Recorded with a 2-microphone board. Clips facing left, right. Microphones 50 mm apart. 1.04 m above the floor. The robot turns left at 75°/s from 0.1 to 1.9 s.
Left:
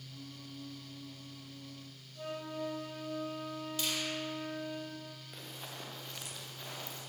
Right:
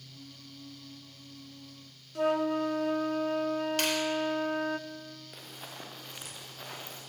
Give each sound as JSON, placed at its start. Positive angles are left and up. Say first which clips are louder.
{"t": 2.1, "sound": "a flute", "louder": "right 13 dB", "side_deg": -70, "distance_m": 1.1}
{"t": 3.8, "sound": "a finger snap", "louder": "right 4 dB", "side_deg": -65, "distance_m": 3.5}
{"t": 5.3, "sound": "running footsteps", "louder": "left 1 dB", "side_deg": -5, "distance_m": 5.5}